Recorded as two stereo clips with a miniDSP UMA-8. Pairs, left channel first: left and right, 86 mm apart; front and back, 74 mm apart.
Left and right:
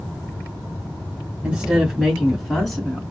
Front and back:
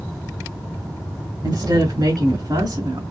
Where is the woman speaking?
165° right, 2.5 m; by 3.0 s 170° left, 3 m.